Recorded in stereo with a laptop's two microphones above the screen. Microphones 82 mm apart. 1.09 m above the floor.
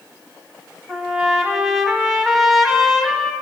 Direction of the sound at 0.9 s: Centre (ahead or behind).